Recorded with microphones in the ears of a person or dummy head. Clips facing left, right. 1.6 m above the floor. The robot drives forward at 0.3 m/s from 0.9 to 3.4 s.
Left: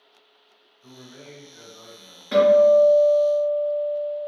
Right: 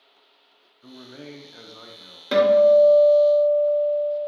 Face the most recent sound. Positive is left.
turn(degrees=-70)  # may be behind; listen again after turning